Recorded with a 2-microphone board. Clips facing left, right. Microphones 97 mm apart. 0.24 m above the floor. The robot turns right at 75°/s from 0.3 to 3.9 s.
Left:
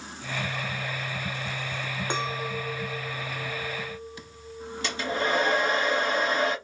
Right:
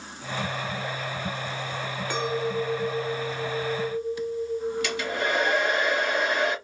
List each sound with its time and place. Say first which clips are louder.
2.1 s a clink: right 5 dB; 45° left, 0.6 m; by 5.8 s straight behind, 0.6 m
4.8 s a hair dryer: even; 35° left (ahead or behind), 1.4 m